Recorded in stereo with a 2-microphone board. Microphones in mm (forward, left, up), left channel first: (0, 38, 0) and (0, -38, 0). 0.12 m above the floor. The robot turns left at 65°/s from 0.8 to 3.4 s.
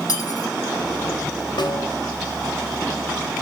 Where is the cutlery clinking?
55° left (ahead or behind), 4 m.